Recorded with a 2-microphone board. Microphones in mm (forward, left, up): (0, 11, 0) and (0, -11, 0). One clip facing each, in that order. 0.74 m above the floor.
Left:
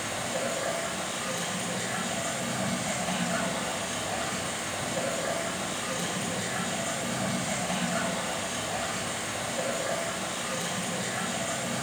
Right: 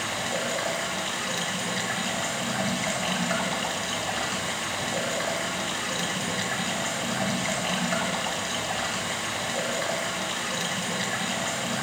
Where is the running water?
65° right (ahead or behind), 2.5 m.